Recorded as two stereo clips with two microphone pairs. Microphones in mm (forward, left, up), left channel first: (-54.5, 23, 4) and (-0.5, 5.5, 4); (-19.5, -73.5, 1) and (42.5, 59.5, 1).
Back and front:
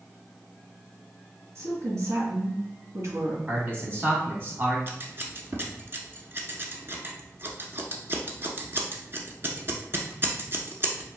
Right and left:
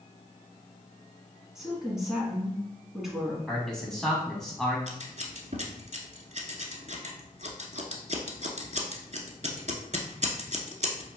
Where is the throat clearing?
No throat clearing in this recording.